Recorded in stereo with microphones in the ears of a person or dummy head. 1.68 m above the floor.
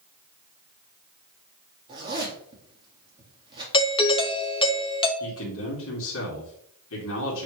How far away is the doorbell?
About 0.7 m.